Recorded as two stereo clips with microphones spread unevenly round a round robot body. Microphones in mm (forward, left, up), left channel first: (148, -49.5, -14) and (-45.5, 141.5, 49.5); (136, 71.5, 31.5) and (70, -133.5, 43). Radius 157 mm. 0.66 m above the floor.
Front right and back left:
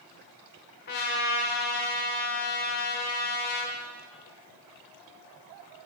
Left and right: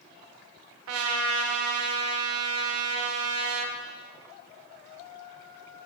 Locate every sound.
0.9 s a trumpet: 110° right, 0.7 m